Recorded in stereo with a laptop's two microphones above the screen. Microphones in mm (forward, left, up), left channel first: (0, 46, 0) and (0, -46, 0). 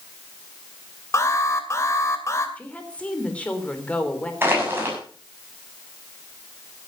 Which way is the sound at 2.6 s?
15° left (ahead or behind).